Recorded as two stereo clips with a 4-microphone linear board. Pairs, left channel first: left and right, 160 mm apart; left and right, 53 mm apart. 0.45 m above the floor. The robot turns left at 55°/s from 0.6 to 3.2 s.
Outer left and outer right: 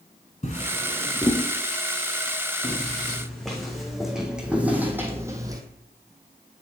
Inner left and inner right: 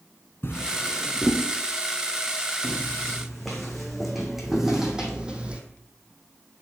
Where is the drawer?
50° left (ahead or behind), 1.4 m; by 1.4 s centre (ahead or behind), 1.4 m.